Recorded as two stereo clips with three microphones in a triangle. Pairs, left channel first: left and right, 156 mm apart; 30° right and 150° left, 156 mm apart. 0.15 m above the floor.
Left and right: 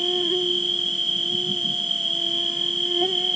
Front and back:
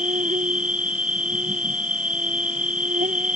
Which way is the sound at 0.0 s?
Straight behind.